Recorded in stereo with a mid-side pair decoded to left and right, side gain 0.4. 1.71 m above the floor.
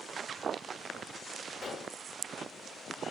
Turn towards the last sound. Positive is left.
turn(degrees=50)